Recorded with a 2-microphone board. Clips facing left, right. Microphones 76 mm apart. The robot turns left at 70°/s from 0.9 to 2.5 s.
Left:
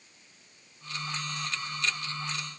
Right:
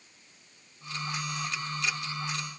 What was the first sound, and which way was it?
Only background noise.